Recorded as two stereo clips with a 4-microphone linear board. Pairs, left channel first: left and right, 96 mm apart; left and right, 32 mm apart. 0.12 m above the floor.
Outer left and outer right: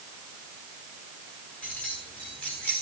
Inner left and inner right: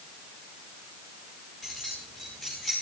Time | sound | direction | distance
1.6 | keys jangling | 10° left (ahead or behind) | 9 m